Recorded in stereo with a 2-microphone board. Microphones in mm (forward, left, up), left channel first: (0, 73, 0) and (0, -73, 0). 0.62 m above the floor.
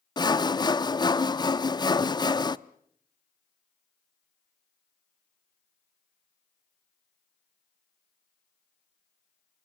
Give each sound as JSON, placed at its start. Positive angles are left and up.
{"t": 0.2, "sound": "sawing", "side_deg": 30, "distance_m": 0.6}